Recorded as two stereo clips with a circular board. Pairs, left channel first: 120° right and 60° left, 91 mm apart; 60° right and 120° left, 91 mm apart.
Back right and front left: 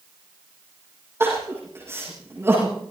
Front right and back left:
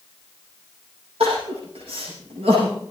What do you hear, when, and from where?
1.2 s crying: 125° left, 9.5 m